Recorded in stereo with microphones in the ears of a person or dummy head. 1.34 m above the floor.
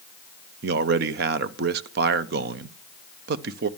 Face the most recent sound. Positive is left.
turn(degrees=-55)  # may be behind; listen again after turning